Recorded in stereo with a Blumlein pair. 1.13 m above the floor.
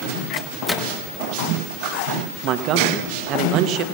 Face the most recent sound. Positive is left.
turn(degrees=-35)